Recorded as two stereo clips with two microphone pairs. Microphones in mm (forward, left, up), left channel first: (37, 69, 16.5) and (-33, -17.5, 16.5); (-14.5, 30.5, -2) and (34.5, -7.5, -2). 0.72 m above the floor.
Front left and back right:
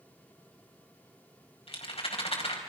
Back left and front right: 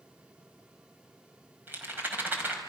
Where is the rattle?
20° left, 4.5 m.